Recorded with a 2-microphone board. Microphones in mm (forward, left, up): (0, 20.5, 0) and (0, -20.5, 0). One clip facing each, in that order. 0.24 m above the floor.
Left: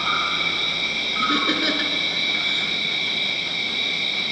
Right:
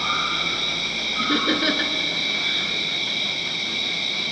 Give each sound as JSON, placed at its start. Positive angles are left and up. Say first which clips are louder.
{"t": 0.0, "sound": "an insect", "louder": "left 1 dB", "side_deg": 20, "distance_m": 7.0}
{"t": 1.2, "sound": "laughter", "louder": "even", "side_deg": -5, "distance_m": 2.5}